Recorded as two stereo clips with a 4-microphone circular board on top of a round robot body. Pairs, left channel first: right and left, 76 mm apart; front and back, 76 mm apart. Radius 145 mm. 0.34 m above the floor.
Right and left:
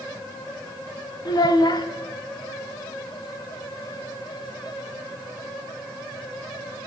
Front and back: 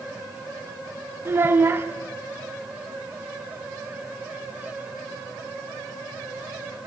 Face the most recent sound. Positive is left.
turn(degrees=-120)